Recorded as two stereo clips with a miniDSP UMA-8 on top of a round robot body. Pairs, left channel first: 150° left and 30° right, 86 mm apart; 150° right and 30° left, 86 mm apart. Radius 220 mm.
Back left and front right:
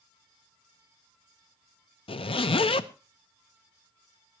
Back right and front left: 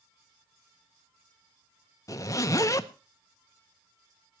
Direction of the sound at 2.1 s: 155° left.